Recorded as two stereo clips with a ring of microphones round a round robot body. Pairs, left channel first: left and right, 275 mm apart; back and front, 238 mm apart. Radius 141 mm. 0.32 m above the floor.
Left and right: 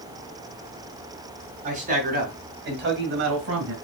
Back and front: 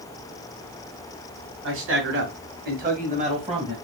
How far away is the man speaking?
About 2 m.